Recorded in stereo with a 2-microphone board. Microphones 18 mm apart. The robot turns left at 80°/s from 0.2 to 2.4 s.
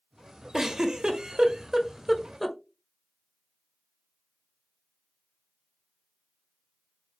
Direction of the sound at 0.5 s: 25° right (ahead or behind).